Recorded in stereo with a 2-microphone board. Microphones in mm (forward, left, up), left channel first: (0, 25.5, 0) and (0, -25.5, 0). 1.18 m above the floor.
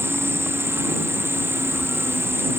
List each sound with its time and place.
0.0 s an insect: 55° right (ahead or behind)